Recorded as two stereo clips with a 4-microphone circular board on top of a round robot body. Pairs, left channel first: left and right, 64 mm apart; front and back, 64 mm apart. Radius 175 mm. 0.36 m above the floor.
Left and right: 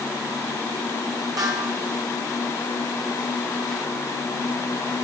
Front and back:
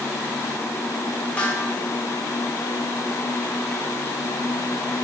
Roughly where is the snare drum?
Right.